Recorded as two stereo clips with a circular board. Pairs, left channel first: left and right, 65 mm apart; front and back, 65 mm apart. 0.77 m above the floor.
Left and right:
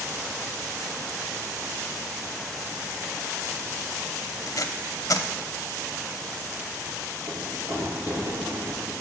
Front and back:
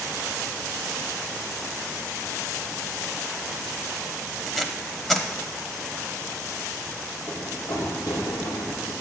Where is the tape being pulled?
90° left, 1.0 m.